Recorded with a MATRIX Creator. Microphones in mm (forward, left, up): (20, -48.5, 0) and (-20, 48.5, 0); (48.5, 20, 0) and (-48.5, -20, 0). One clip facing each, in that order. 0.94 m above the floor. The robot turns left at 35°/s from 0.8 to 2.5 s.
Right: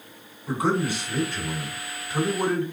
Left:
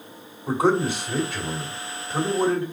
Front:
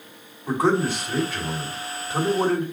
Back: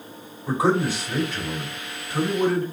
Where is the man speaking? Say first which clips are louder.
Left 4 dB, even; 120° left, 2.5 m; by 2.6 s 60° left, 2.5 m.